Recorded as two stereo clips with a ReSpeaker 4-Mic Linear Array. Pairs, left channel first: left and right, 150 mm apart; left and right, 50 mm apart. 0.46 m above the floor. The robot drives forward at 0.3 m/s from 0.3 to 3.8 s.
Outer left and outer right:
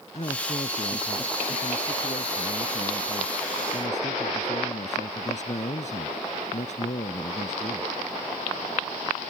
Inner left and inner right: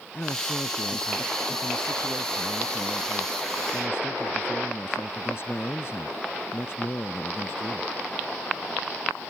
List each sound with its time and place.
0.1 s a man speaking: 45° left (ahead or behind); by 7.9 s 50° left (ahead or behind)